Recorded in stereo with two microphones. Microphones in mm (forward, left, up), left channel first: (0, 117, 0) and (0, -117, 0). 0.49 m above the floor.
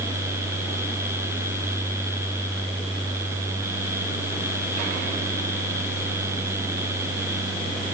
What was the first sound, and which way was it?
Only background noise.